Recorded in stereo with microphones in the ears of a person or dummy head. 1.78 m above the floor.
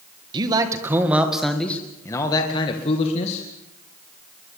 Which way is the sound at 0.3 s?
25° right (ahead or behind).